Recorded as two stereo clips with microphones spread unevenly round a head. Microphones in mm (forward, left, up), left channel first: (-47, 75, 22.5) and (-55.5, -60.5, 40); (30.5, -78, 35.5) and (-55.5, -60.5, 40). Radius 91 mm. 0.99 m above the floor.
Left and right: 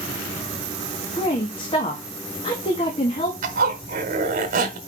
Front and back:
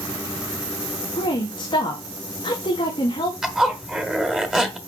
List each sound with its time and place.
1.2 s a woman speaking: 30° left, 1.6 m
3.4 s a zipper: 110° right, 1.7 m